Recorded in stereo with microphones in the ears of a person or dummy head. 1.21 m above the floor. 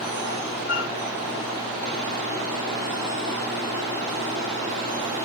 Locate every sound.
0.7 s a flute: 35° left (ahead or behind), 0.7 m